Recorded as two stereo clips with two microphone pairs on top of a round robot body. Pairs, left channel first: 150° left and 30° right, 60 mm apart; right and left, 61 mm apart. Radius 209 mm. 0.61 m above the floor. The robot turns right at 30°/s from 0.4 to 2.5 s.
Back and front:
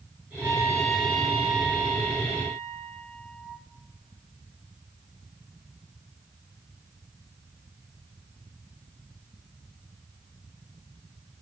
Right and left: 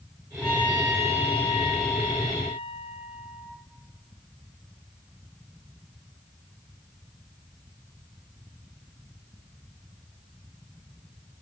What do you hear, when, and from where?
0.4 s a trumpet: 75° right, 4 m; by 3.6 s 10° right, 4 m